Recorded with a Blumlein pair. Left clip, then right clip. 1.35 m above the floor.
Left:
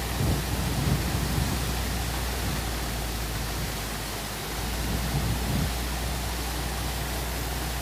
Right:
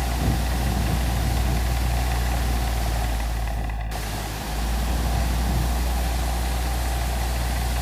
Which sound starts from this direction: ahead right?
A fan, at 0.0 s.